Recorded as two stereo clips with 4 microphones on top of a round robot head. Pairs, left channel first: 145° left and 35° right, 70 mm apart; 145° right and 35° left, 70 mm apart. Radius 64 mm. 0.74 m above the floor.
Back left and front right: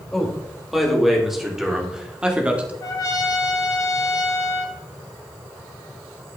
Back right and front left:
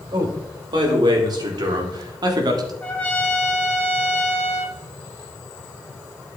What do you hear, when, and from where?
0.1 s a man speaking: 55° left, 3 m; by 2.7 s 35° left, 1.6 m
2.8 s a trumpet: 155° left, 1.6 m